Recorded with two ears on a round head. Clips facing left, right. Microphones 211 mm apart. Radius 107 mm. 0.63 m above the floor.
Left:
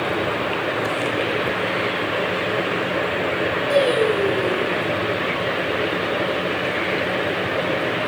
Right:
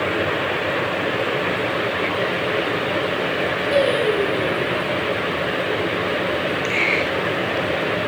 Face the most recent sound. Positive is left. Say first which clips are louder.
# left 1 dB
turn(degrees=85)